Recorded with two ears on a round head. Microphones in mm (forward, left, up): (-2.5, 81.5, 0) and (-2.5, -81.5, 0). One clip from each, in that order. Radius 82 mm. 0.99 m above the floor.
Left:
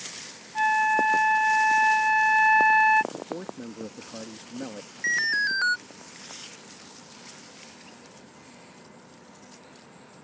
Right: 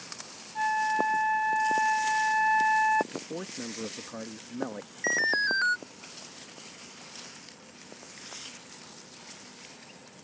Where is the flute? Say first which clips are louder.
Left 5 dB; 55° left (ahead or behind).